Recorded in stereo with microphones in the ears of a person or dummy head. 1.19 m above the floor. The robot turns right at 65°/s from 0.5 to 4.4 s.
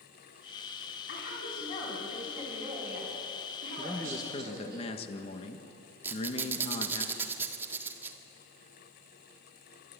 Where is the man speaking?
5° right, 1.7 m; by 7.0 s 40° left, 1.7 m.